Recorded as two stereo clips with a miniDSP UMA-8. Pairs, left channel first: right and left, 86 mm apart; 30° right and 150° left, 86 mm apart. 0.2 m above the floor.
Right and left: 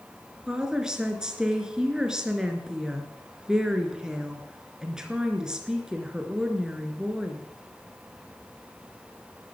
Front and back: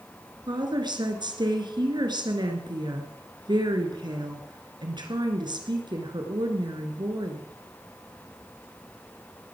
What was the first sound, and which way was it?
A woman speaking, 170° left.